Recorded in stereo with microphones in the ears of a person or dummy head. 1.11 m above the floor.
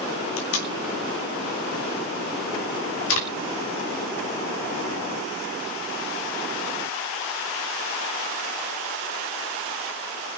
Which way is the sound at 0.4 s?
75° left (ahead or behind).